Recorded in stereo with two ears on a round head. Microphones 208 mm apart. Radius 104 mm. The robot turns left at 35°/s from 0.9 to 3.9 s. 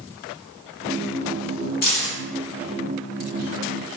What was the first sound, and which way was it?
Keys jangling, 40° left (ahead or behind).